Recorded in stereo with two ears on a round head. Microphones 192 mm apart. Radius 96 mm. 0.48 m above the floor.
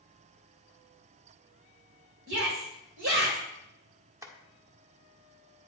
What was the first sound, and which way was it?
A shout, 60° right (ahead or behind).